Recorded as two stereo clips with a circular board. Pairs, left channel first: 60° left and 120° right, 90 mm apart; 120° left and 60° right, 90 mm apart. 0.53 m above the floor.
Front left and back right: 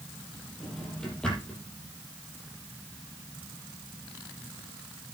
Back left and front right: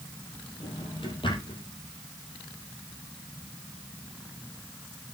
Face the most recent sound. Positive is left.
turn(degrees=140)